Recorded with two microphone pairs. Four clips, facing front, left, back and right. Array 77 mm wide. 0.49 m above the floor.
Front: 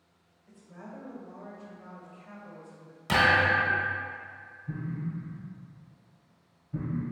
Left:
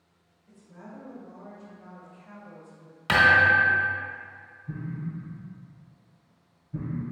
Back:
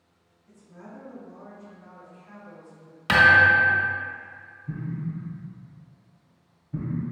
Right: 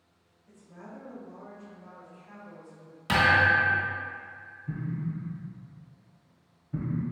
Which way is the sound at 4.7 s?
85° right.